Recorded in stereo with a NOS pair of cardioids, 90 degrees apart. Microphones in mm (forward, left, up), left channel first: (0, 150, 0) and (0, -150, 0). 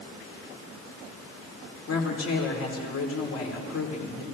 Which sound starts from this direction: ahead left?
A woman speaking, at 1.9 s.